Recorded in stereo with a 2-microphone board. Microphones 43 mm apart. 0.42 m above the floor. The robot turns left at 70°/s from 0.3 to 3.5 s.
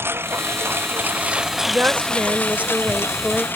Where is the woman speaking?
55° right; by 3.5 s straight behind.